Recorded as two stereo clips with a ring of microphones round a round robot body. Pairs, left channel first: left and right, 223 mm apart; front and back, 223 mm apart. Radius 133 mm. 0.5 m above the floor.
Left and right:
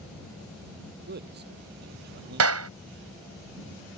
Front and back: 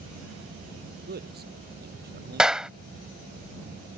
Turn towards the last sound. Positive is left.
turn(degrees=-95)